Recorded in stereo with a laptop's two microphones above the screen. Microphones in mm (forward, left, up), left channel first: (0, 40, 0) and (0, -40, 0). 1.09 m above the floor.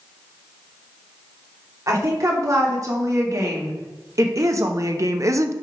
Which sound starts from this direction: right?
A woman speaking, at 1.9 s.